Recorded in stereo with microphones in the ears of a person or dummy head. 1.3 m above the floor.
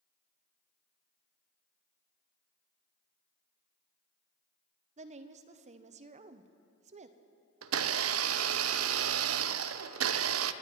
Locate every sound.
5.0 s a woman speaking: 35° right (ahead or behind), 0.7 m
7.6 s a blender: 70° right (ahead or behind), 0.6 m